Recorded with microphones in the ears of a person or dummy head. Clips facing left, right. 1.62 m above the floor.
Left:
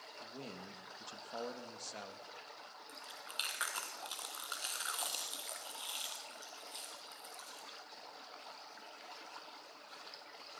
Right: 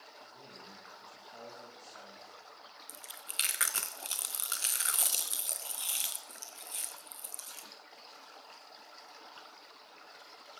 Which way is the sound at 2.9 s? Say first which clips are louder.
Left 1 dB; 30° right (ahead or behind).